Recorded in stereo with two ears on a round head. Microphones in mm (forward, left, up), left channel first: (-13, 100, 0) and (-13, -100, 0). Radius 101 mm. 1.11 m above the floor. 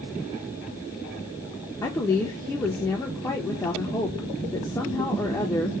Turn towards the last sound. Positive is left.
turn(degrees=10)  # may be behind; listen again after turning